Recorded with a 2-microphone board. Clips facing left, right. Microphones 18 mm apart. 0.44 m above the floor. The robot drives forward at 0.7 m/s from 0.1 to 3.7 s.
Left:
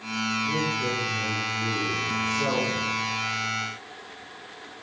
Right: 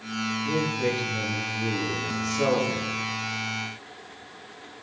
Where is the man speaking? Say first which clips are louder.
Even; 80° right, 8 m; by 2.9 s 70° right (ahead or behind), 8.5 m.